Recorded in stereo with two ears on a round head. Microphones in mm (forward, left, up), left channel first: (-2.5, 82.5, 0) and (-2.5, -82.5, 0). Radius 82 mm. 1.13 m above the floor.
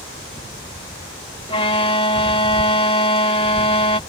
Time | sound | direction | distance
1.5 | a violin | 30° left (ahead or behind) | ?